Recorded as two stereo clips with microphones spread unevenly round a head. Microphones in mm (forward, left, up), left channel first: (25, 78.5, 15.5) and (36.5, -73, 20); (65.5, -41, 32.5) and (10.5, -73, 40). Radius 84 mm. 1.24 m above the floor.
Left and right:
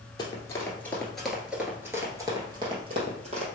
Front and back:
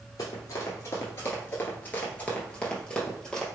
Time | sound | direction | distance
0.2 | running footsteps | 45° left | 1.5 m